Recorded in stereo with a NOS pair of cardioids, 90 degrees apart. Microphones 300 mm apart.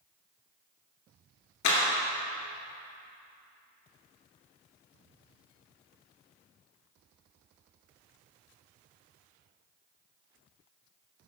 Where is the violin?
I don't hear a violin.